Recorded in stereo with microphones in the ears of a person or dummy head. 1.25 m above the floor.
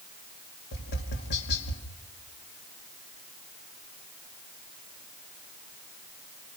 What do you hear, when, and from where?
0.7 s tapping: 60° left (ahead or behind), 2.5 m